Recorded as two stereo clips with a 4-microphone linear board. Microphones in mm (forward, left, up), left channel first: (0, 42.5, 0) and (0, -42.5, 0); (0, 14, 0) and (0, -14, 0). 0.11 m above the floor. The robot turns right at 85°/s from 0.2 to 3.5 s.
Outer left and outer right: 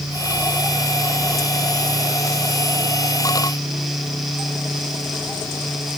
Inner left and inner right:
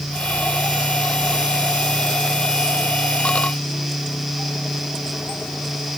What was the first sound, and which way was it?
Only background noise.